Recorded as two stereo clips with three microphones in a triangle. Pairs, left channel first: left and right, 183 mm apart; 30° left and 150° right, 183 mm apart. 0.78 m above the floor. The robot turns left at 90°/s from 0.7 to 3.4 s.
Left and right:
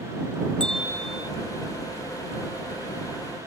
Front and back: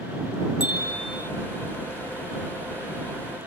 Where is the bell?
5° left; by 1.3 s 50° right.